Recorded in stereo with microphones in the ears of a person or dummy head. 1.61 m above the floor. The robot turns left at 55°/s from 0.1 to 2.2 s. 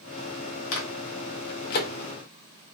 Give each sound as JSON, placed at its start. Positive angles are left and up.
{"t": 0.7, "sound": "a microwave", "side_deg": 65, "distance_m": 0.5}